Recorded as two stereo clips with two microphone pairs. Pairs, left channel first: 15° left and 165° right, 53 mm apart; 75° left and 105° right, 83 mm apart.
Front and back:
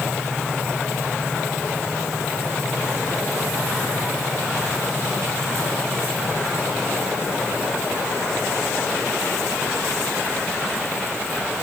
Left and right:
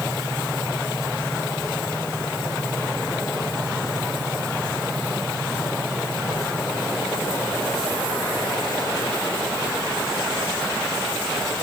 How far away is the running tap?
I don't hear a running tap.